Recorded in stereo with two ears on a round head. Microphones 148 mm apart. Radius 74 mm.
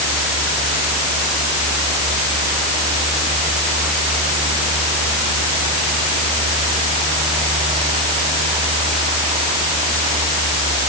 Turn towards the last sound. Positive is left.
No sound to turn to.